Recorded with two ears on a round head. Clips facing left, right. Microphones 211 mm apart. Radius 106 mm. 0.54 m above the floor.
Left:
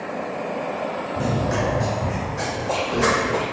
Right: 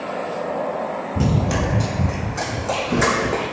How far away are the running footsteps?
About 0.7 m.